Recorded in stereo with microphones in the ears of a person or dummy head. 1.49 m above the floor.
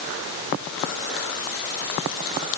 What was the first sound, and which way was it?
Only background noise.